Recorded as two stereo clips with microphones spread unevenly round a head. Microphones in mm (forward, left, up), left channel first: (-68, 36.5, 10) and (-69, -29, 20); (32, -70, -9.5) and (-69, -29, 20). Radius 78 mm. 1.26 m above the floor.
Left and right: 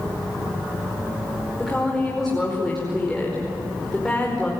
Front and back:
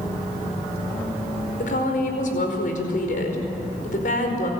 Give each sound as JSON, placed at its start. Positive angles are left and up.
{"t": 1.6, "sound": "a woman speaking", "azimuth_deg": 0, "distance_m": 4.5}